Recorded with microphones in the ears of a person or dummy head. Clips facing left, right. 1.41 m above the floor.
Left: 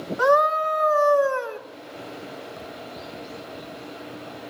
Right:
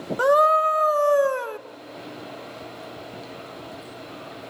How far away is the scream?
About 1.5 m.